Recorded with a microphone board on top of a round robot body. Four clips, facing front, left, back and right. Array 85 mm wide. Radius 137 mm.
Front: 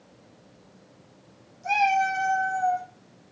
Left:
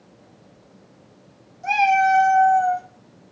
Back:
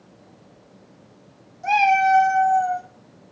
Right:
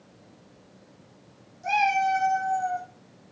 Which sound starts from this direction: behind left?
A cat meowing, at 1.6 s.